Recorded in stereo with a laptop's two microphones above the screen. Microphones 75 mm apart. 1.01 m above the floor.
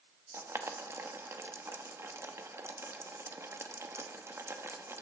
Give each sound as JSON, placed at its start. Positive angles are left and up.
{"t": 0.3, "sound": "boiling", "side_deg": -40, "distance_m": 1.0}